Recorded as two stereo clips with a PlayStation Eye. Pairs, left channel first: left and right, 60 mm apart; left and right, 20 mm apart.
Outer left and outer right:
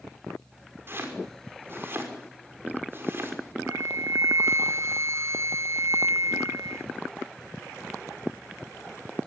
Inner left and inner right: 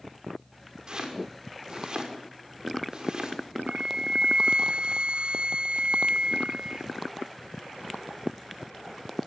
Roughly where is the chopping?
Right.